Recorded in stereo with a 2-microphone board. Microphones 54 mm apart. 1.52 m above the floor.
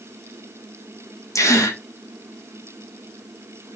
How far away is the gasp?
About 1.6 m.